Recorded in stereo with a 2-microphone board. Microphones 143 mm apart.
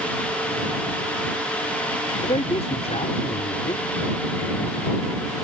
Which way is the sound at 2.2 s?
50° left (ahead or behind).